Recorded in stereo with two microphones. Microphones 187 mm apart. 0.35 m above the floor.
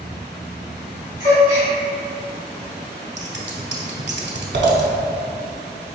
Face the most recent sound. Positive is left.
turn(degrees=-75)  # may be behind; listen again after turning